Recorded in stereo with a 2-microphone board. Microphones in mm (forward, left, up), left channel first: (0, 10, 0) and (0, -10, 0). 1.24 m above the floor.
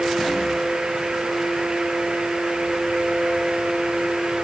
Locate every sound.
Only background noise.